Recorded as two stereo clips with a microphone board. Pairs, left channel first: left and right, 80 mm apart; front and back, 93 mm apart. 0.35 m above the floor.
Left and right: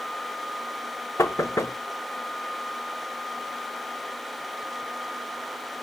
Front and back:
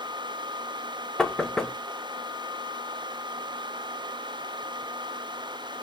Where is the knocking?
80° left, 0.7 m.